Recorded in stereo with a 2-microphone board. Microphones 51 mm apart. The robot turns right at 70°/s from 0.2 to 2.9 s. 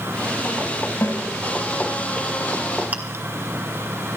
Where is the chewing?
30° right (ahead or behind), 2 m.